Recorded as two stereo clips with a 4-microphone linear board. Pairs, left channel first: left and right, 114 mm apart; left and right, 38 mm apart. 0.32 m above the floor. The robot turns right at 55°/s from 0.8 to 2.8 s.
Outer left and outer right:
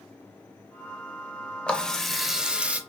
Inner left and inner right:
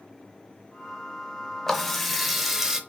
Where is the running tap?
10° left (ahead or behind), 0.5 m; by 2.8 s 10° right (ahead or behind), 0.5 m.